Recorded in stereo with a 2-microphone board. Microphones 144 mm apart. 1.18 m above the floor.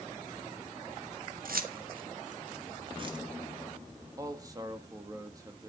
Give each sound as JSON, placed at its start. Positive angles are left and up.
{"t": 1.4, "sound": "keys jangling", "side_deg": -80, "distance_m": 1.5}
{"t": 4.2, "sound": "a man speaking", "side_deg": -25, "distance_m": 1.9}